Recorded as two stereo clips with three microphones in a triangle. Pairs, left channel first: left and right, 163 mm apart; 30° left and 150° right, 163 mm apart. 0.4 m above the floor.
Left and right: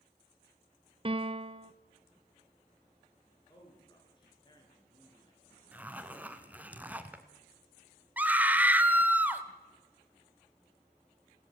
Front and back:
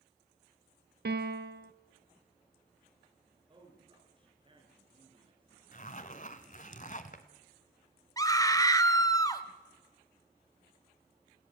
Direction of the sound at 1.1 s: 145° right.